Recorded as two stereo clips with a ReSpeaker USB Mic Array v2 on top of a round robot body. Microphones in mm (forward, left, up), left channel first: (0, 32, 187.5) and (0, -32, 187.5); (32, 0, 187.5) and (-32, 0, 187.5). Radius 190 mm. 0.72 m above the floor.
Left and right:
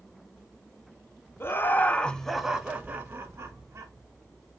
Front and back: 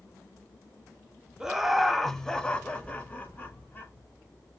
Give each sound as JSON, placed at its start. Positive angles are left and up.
{"t": 1.4, "sound": "laughter", "azimuth_deg": 100, "distance_m": 0.8}